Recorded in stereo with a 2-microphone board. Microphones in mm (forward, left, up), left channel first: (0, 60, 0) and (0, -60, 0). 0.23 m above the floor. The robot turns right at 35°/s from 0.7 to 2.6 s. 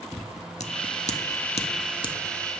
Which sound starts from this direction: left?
Scissors, at 0.1 s.